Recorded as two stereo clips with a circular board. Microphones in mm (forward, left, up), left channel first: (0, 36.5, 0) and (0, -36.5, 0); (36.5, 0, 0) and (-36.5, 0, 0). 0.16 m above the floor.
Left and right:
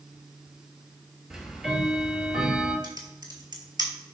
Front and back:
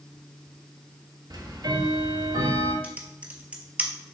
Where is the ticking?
170° right, 0.7 m.